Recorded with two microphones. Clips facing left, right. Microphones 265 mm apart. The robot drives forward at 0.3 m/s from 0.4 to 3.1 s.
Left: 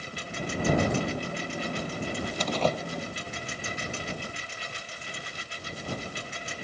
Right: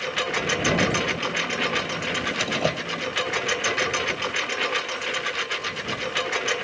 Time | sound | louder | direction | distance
0.0 | a lawn mower | right 9 dB | 90° right | ?
2.4 | a door slam | even | 10° right (ahead or behind) | ?